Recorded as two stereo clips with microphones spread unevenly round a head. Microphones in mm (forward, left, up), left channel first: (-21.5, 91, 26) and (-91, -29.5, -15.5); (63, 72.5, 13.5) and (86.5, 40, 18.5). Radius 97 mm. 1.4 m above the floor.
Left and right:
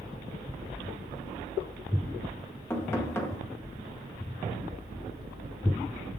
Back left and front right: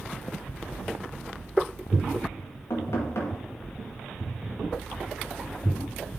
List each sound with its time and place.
2.7 s knocking: 135° left, 1.9 m